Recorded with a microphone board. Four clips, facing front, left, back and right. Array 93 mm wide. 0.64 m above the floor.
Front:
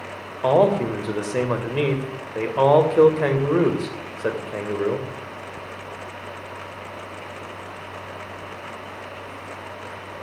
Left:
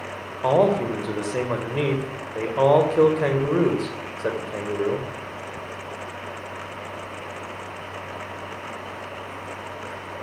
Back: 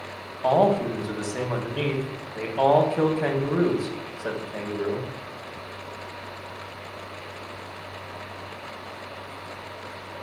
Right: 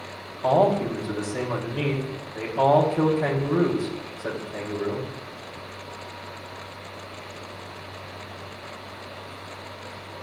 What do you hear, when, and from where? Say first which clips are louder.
0.4 s a man speaking: left 1 dB, front 3 dB; 30° left, 3 m